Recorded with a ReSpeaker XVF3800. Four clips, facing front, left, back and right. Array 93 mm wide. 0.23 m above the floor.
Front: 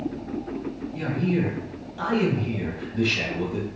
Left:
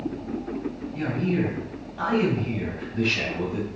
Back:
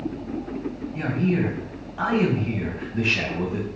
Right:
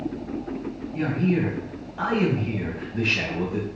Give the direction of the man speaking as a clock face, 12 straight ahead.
5 o'clock.